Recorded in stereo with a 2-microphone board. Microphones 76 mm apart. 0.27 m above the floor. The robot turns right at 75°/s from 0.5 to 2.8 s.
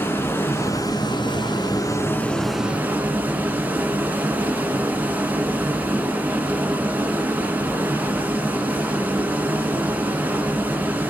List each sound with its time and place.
0.0 s running water: 30° left, 0.8 m; by 11.1 s 160° right, 0.8 m